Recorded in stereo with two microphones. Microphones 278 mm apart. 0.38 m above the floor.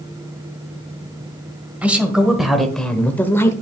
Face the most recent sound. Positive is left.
turn(degrees=10)  # may be behind; listen again after turning